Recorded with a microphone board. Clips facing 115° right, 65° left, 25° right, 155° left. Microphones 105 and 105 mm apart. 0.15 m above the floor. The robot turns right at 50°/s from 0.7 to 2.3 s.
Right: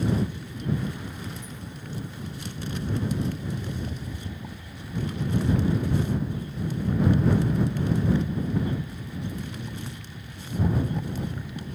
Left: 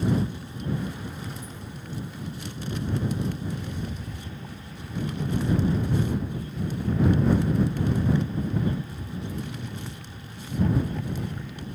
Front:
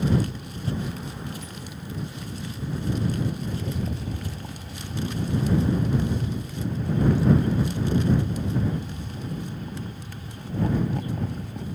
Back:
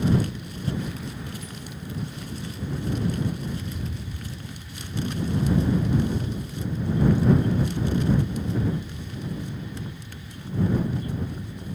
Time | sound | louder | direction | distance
3.5 | a rattle | even, front 3 dB | 35° right | ?